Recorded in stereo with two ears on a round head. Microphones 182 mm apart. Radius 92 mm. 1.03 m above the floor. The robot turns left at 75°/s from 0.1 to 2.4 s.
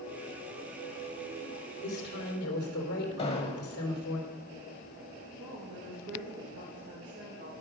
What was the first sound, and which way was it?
A woman speaking, 135° left.